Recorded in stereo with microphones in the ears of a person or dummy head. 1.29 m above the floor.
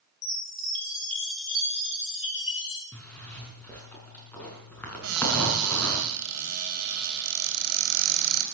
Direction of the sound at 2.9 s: 10° left (ahead or behind).